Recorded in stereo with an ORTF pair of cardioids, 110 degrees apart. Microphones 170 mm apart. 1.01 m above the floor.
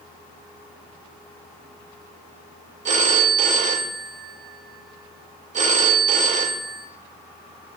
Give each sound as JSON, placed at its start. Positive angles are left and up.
{"t": 2.9, "sound": "a phone ringing", "azimuth_deg": -45, "distance_m": 1.2}